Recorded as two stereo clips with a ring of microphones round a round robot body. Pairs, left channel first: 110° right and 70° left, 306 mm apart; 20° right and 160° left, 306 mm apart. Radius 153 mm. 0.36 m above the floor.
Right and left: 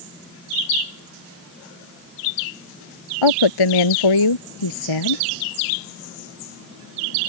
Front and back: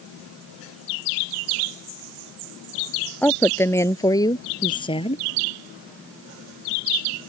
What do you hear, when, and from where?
3.2 s a woman speaking: 110° right; by 5.2 s 95° right